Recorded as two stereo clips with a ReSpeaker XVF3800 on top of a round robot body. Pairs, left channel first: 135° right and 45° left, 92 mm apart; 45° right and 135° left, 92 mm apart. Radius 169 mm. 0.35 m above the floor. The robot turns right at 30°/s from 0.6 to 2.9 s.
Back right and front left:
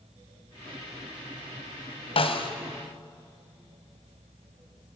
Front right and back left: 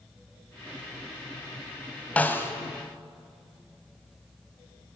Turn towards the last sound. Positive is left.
turn(degrees=-100)